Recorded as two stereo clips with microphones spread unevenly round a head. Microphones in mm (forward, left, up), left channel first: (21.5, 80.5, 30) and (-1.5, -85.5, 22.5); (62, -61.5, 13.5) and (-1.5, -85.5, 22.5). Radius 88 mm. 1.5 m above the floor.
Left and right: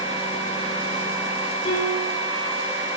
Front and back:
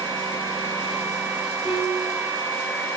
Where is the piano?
135° left, 9 m.